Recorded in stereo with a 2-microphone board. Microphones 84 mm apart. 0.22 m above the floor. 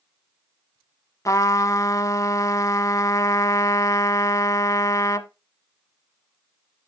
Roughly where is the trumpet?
Left.